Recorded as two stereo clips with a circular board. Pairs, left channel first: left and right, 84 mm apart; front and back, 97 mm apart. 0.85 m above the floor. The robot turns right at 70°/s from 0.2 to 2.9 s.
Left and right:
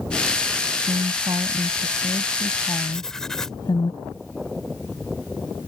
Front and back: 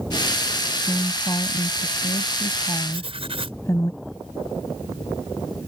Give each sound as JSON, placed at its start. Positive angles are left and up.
{"t": 0.8, "sound": "a woman speaking", "azimuth_deg": -85}
{"t": 2.9, "sound": "writing", "azimuth_deg": 175}